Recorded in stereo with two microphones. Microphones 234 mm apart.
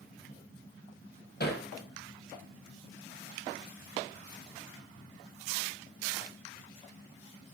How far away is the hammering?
About 3.5 m.